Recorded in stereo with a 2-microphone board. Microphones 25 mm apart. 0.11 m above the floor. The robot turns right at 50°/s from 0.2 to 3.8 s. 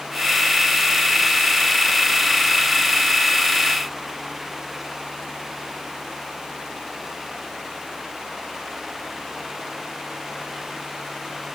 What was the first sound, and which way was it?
Only background noise.